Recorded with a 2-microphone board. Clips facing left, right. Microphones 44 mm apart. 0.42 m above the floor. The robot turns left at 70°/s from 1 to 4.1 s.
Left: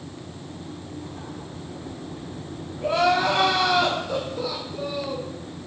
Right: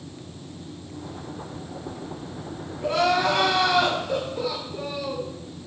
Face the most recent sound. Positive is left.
turn(degrees=-40)